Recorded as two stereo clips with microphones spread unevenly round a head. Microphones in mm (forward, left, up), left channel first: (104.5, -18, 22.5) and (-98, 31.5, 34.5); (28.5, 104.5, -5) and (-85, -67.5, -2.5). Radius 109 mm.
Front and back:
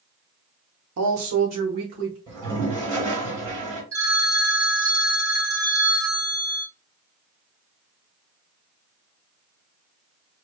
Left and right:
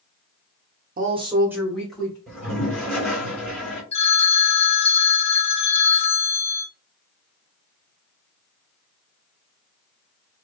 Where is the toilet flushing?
145° left, 2 m.